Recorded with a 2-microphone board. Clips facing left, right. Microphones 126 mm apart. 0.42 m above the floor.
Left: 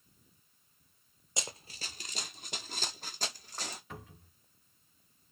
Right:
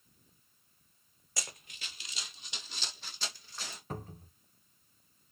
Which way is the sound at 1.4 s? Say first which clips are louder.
Left 4 dB; 20° left (ahead or behind).